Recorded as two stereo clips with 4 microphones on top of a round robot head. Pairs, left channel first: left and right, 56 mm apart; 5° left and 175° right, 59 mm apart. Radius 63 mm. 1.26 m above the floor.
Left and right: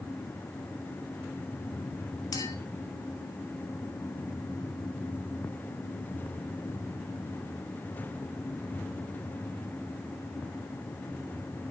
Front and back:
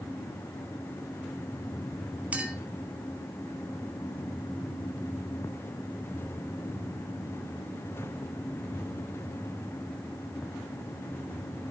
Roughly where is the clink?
Behind left.